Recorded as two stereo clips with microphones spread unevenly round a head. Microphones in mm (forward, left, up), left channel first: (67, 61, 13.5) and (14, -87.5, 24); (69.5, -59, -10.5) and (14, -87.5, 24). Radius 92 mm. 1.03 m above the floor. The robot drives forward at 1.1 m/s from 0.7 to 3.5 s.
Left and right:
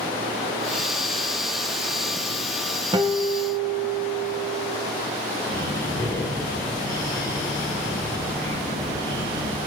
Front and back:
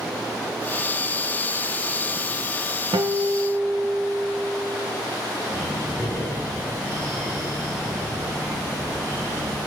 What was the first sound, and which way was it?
A guitar, 165° right.